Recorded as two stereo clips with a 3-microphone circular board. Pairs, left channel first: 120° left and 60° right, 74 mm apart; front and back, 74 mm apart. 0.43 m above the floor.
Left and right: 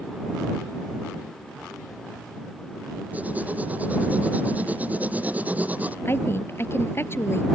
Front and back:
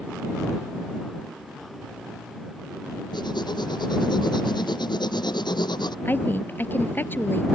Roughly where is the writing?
Ahead.